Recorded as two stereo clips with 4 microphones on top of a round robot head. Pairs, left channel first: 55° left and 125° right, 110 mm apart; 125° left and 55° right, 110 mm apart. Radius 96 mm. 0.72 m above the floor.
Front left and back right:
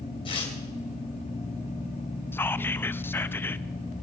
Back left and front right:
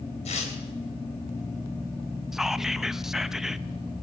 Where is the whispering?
25° left, 0.9 m.